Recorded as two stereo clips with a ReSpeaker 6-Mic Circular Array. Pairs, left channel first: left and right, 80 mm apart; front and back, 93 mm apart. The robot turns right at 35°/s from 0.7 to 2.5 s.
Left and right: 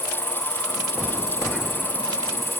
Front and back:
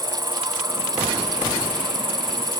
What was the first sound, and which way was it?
An insect, 115° left.